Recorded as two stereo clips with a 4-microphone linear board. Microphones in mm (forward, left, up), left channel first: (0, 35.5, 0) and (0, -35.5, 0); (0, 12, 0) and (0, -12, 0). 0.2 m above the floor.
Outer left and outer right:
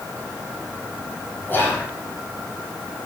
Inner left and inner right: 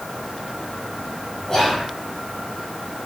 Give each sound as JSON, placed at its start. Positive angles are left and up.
{"t": 1.5, "sound": "whispering", "side_deg": 30, "distance_m": 1.2}